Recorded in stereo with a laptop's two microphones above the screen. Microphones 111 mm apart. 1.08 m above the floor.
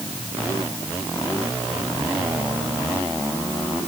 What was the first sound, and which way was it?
Only background noise.